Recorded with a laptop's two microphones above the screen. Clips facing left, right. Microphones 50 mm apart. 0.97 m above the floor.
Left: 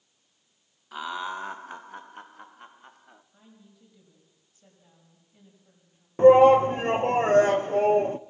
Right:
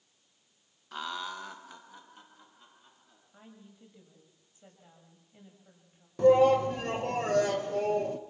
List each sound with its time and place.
0.9 s laughter: 5° left (ahead or behind), 0.6 m; by 3.2 s 60° left (ahead or behind), 1.9 m
3.3 s a woman speaking: 25° right (ahead or behind), 6 m
6.2 s a shout: 35° left (ahead or behind), 0.9 m